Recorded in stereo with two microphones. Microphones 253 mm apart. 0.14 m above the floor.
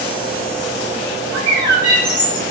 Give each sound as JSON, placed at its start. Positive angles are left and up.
{"t": 1.3, "sound": "a bird", "side_deg": -15, "distance_m": 8.0}